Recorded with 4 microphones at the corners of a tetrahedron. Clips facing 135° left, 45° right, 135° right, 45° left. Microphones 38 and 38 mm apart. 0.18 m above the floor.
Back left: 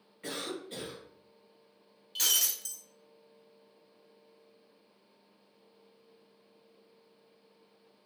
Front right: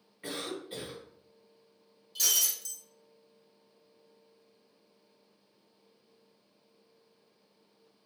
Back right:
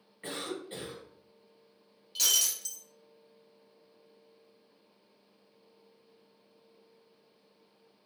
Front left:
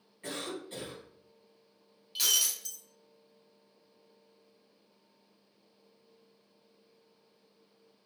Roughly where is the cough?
Behind right.